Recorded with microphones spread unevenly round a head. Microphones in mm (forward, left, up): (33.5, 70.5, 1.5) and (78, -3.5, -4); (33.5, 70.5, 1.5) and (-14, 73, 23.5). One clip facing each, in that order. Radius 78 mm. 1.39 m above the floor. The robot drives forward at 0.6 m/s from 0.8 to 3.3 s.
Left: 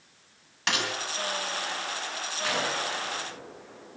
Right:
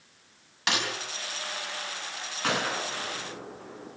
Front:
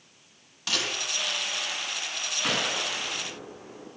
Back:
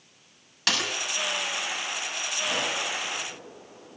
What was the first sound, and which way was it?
A snare drum, 145° right.